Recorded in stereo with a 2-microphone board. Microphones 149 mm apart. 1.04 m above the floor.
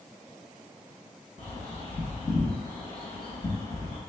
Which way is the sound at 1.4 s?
50° left (ahead or behind).